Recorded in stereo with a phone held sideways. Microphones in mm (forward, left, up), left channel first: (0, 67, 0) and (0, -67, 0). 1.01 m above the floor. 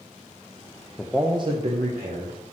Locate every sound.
1.0 s a man speaking: 15° left (ahead or behind), 0.5 m; by 2.4 s 70° right (ahead or behind), 1.5 m